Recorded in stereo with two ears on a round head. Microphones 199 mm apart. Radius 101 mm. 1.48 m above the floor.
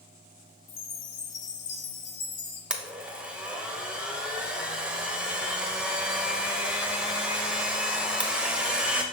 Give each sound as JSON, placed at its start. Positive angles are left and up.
{"t": 0.7, "sound": "a chime", "side_deg": 85, "distance_m": 1.4}
{"t": 2.7, "sound": "a blender", "side_deg": -5, "distance_m": 0.8}